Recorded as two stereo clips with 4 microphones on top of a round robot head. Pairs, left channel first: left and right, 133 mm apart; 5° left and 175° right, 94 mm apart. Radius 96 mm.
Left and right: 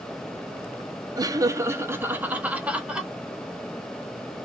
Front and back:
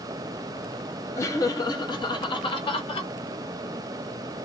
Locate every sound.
1.2 s laughter: 40° right, 0.9 m; by 3.1 s 5° right, 1.6 m